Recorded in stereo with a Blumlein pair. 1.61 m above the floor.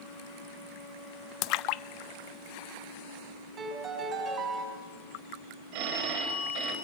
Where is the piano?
25° right, 6 m.